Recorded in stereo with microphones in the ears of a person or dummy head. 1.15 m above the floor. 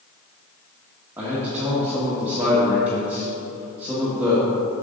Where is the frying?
No frying in this recording.